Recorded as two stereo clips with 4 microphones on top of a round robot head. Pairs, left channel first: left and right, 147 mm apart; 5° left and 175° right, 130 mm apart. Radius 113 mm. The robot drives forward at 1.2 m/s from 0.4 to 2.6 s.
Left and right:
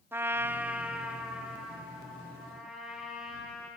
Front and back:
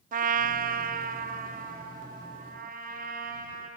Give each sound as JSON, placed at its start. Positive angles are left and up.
{"t": 0.1, "sound": "a trumpet", "azimuth_deg": -170, "distance_m": 0.5}